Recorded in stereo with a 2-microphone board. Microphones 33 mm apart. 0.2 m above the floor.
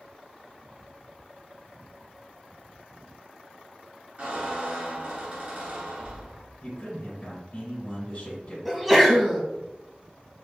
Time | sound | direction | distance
4.2 | a squeak | 55° right (ahead or behind) | 1.8 m
6.6 | a man speaking | 45° left (ahead or behind) | 1.5 m
8.7 | a sneeze | centre (ahead or behind) | 1.0 m